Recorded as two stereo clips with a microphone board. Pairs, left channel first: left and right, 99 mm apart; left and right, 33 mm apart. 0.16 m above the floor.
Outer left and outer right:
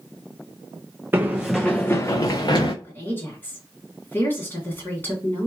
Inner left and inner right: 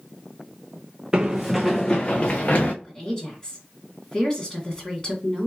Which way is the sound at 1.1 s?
25° right (ahead or behind).